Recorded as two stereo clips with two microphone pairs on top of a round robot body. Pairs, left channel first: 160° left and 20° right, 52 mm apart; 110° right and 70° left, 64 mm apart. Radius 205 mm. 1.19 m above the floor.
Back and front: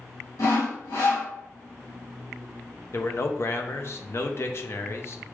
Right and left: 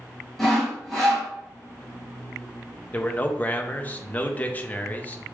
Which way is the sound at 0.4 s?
165° left.